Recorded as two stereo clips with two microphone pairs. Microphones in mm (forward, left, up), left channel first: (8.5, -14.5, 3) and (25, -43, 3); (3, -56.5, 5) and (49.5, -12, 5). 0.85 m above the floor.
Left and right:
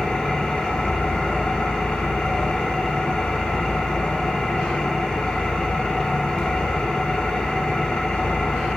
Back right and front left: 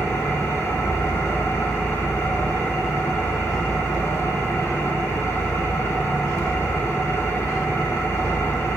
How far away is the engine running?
About 1.8 m.